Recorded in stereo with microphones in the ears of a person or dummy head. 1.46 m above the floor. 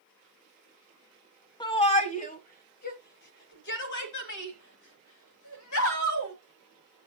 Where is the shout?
20° left (ahead or behind), 1.2 m; by 6.3 s 75° left (ahead or behind), 3 m.